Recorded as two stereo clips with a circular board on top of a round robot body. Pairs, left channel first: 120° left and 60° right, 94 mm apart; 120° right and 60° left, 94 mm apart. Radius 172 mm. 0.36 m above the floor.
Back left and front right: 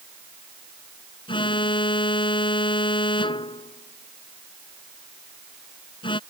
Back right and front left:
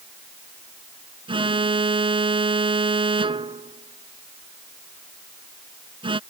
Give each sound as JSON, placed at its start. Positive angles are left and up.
{"t": 1.3, "sound": "an alarm", "azimuth_deg": 90}